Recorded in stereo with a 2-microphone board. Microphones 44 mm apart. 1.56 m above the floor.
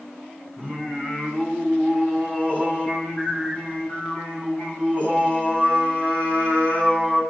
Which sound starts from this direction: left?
Singing, at 0.6 s.